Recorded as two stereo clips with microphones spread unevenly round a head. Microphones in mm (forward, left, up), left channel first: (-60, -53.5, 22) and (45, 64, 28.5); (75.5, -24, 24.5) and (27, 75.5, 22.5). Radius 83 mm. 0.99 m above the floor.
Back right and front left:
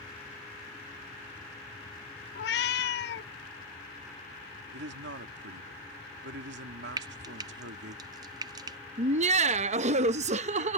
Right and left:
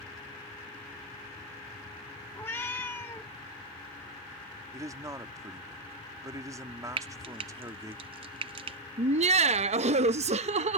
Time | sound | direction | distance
2.4 | a cat meowing | 140° right | ?
4.7 | a man speaking | 55° left | ?
7.0 | frying | 105° left | ?
9.0 | laughter | 95° left | ?